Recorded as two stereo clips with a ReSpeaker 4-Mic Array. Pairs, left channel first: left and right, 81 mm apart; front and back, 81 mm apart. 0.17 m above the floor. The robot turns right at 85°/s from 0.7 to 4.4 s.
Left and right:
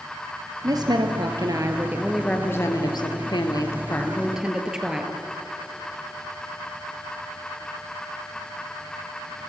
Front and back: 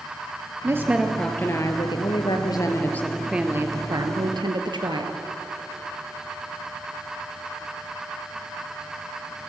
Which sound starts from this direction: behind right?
A woman speaking, at 0.6 s.